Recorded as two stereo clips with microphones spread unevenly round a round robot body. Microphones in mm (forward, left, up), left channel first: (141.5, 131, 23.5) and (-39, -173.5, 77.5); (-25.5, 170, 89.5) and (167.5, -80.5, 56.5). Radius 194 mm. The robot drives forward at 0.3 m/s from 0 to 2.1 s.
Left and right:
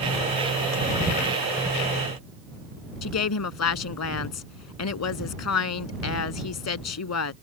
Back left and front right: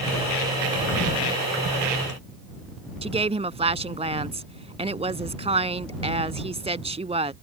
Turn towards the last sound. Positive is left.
turn(degrees=20)